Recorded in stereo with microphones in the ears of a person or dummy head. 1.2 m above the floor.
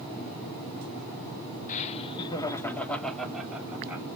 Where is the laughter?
50° left (ahead or behind), 1.0 m; by 4.1 s 5° right (ahead or behind), 1.8 m.